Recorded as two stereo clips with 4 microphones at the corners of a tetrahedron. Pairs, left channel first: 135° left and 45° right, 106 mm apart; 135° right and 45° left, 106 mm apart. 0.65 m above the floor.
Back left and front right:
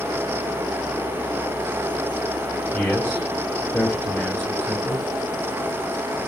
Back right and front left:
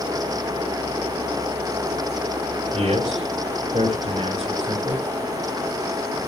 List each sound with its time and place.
2.7 s a man speaking: 55° left, 5 m